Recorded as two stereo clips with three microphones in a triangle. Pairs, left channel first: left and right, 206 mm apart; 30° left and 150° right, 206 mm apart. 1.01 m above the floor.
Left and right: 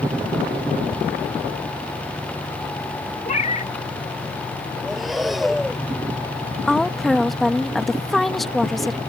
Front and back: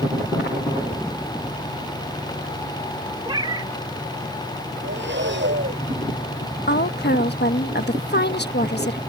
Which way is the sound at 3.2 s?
145° left.